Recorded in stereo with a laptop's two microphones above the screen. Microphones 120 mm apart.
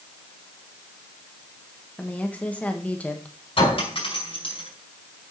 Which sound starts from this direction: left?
A clink, at 3.6 s.